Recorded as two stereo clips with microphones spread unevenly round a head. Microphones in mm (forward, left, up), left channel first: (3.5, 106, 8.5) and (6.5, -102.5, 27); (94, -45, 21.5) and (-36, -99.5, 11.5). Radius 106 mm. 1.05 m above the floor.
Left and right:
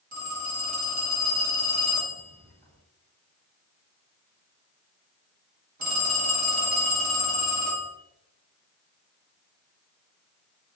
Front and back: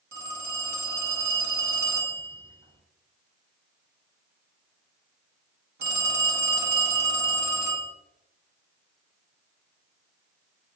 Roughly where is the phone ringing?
Behind right.